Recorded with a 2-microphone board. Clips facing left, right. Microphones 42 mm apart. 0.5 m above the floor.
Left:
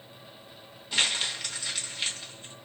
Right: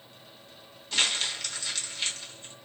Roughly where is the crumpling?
Centre.